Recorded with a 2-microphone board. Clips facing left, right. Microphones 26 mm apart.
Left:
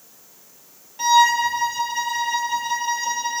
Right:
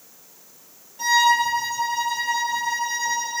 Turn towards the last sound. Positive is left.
turn(degrees=35)  # may be behind; listen again after turning